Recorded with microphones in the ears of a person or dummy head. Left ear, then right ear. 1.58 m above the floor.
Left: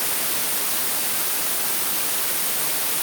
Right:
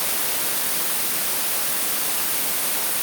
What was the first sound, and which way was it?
Only background noise.